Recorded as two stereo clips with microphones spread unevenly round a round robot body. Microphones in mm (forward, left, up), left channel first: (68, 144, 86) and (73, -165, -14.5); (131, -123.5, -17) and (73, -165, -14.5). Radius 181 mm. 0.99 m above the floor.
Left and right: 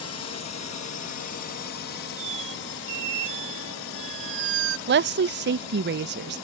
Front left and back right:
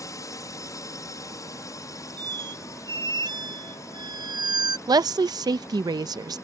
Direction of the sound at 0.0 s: 45° left.